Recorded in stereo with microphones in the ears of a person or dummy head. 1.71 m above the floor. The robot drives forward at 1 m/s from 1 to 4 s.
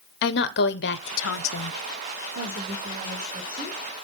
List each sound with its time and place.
0.2 s a woman speaking: 60° left (ahead or behind), 0.8 m; by 1.7 s 50° left (ahead or behind), 0.8 m
2.4 s a woman speaking: 55° right (ahead or behind), 2 m; by 3.8 s 35° right (ahead or behind), 3.5 m